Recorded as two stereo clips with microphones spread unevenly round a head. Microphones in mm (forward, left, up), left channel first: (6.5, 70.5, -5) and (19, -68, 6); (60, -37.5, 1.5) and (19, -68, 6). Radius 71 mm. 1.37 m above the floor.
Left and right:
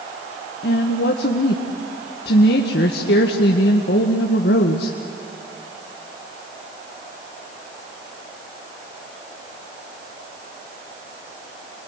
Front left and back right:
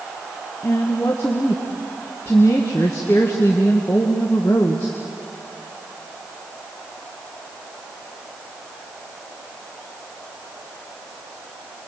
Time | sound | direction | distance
0.6 | a woman speaking | 100° left | 1.4 m